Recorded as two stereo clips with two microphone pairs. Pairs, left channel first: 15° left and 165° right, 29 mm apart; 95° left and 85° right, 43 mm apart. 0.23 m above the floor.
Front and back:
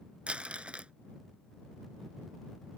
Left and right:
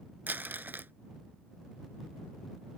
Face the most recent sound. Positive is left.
turn(degrees=-120)